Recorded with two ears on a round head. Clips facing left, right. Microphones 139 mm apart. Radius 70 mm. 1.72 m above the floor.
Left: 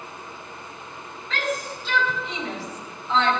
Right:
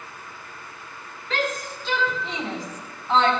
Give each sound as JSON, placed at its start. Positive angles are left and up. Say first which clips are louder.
{"t": 1.3, "sound": "a shout", "louder": "right 1 dB", "side_deg": -55, "distance_m": 4.5}